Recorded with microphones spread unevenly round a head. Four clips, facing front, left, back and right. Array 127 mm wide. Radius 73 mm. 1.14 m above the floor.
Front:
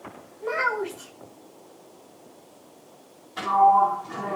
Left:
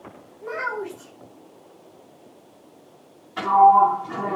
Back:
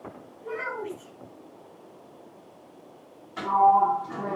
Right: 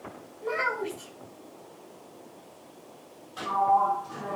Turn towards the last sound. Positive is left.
turn(degrees=100)